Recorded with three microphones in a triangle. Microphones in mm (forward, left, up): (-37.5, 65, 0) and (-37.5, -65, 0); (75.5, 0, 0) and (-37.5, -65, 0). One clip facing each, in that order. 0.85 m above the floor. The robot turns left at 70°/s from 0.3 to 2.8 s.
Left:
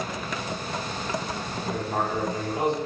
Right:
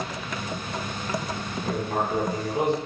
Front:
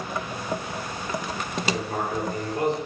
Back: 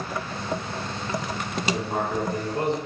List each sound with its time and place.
1.6 s writing: 80° right, 1.6 m; by 2.8 s 160° right, 1.6 m